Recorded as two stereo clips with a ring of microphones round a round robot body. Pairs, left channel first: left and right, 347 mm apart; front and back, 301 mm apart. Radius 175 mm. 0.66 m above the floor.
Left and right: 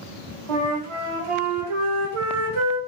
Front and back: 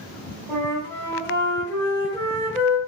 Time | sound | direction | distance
0.5 | a flute | 85° right | 1.1 m